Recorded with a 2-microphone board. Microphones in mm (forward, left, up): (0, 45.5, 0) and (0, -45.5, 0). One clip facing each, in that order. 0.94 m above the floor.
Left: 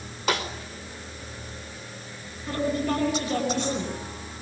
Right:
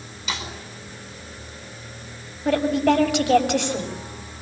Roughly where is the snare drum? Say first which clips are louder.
Left 5 dB; left.